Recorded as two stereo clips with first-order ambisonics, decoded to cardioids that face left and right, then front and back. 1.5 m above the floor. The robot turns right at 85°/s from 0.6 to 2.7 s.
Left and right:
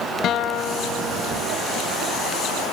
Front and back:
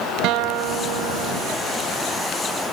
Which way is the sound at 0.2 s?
145° left.